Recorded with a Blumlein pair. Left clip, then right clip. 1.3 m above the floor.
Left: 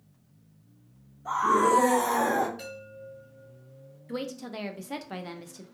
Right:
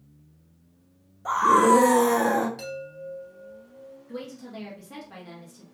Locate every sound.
1.2 s a scream: 60° right, 0.6 m; by 2.5 s 10° right, 0.9 m
2.6 s a chime: 50° right, 1.7 m
4.1 s a woman speaking: 65° left, 0.5 m